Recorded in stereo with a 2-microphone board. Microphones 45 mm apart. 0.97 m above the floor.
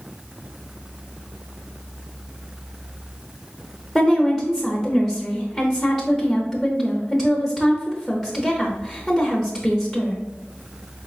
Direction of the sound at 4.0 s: 10° right (ahead or behind).